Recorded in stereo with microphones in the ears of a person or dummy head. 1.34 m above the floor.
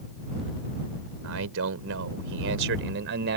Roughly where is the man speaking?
Right.